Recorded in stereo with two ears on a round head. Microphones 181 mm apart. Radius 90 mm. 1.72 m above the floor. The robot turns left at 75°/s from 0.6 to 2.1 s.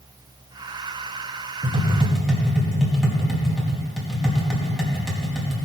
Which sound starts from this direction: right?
Tapping, at 1.6 s.